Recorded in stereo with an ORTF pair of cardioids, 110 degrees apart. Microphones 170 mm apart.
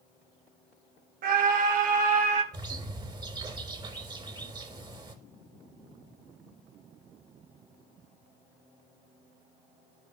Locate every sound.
1.2 s a scream: 55° right, 1.5 m; by 2.4 s 40° right, 3.5 m
2.5 s a bird: 25° right, 4 m